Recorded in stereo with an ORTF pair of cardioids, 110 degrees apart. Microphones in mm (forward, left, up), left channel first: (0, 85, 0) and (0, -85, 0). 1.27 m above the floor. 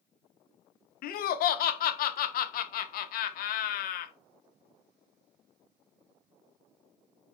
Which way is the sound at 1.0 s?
60° left.